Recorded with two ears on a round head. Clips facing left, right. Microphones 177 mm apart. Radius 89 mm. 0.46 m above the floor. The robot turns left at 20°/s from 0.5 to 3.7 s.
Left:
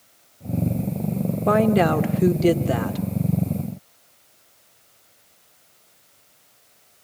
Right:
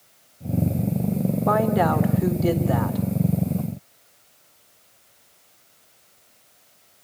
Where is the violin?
No violin in this recording.